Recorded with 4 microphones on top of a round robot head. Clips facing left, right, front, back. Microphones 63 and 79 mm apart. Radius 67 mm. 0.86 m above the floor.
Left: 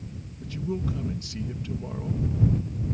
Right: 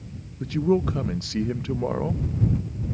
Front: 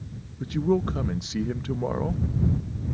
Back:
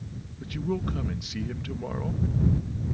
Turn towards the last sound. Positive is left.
turn(degrees=-60)